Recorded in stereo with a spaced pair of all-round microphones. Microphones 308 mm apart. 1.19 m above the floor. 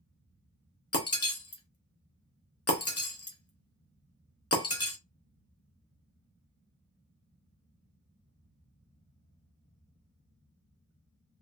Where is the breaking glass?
50° left (ahead or behind), 0.8 m.